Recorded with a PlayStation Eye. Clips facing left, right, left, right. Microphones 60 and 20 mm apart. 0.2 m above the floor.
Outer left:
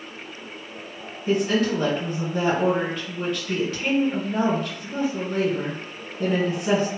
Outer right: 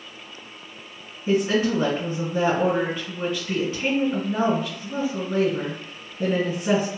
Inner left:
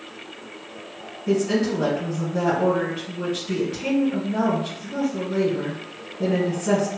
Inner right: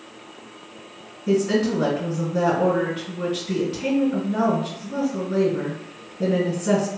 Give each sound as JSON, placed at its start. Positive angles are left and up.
{"t": 1.3, "sound": "a woman speaking", "side_deg": -5, "distance_m": 1.7}